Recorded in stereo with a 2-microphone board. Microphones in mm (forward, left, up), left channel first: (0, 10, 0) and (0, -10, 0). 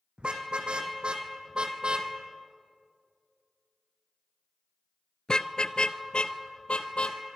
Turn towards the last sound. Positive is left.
turn(degrees=65)  # may be behind; listen again after turning